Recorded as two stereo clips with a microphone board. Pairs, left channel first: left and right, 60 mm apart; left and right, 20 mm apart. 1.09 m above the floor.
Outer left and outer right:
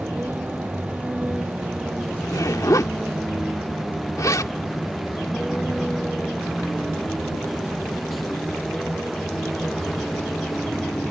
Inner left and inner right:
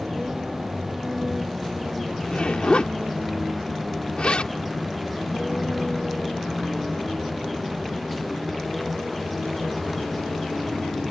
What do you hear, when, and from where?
0.0 s a vehicle: 30° right (ahead or behind); by 11.1 s 10° left (ahead or behind)
2.2 s a zipper: 70° left (ahead or behind)